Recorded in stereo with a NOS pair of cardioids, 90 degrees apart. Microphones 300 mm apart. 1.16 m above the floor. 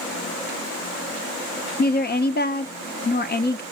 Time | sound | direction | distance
1.8 | a woman speaking | 35° left | 0.7 m